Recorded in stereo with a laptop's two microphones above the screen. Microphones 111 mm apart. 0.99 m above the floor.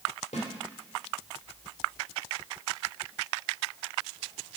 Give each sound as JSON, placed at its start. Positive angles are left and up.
{"t": 0.3, "sound": "a snare drum", "side_deg": 85, "distance_m": 2.0}